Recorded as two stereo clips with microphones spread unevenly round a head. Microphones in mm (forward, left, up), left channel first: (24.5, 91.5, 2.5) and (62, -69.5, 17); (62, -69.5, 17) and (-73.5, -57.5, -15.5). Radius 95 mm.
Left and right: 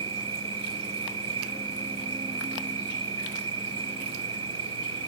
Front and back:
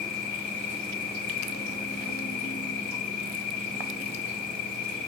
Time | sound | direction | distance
0.0 | an insect | 20° right | ?